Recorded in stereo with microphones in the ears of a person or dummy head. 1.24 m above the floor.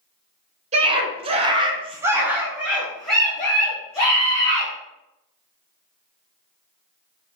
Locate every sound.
0.7 s a scream: 35° right (ahead or behind), 0.9 m; by 4.7 s 15° left (ahead or behind), 1.4 m